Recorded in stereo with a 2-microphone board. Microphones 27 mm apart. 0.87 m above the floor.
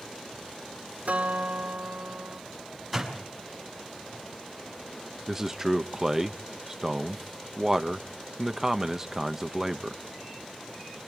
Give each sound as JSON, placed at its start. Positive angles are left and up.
{"t": 1.1, "sound": "a guitar", "side_deg": -75, "distance_m": 3.0}
{"t": 2.9, "sound": "a door slam", "side_deg": -5, "distance_m": 5.5}
{"t": 5.3, "sound": "a man speaking", "side_deg": -15, "distance_m": 0.8}